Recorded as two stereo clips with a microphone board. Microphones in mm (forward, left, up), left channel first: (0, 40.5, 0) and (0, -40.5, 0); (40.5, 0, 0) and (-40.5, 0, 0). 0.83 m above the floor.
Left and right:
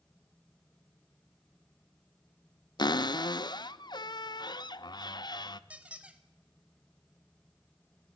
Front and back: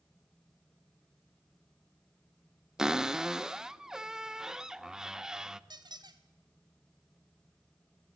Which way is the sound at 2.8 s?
100° left.